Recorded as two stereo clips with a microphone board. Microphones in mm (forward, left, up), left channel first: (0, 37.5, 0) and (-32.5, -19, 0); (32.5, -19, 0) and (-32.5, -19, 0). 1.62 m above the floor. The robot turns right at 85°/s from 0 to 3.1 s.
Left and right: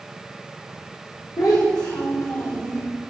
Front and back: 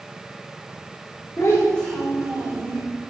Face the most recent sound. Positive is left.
turn(degrees=-175)